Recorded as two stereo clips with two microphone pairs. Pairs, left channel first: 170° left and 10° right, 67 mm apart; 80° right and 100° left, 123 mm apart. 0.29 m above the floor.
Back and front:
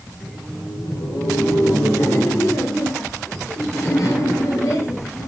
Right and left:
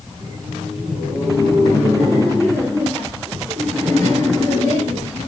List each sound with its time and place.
0.1 s laughter: straight behind, 6 m; by 5.3 s 160° right, 3.5 m